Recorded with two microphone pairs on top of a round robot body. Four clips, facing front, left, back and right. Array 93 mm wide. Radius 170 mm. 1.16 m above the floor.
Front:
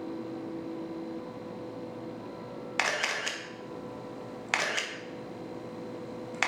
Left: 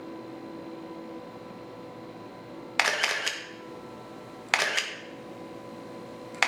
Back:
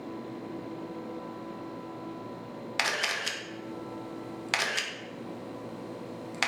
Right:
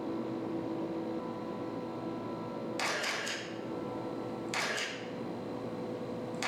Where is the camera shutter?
85° left, 1.3 m.